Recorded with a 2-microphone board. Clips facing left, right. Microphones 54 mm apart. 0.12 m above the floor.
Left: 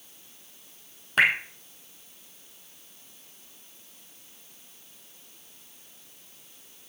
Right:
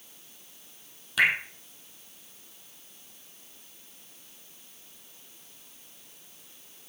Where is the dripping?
40° left (ahead or behind), 2 m.